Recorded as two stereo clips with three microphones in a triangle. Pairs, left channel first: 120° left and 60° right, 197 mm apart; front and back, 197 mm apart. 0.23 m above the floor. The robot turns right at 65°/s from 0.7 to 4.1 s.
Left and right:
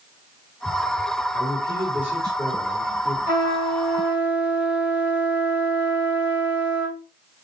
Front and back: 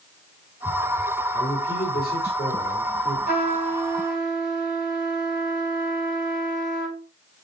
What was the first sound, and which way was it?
A man speaking, 55° right.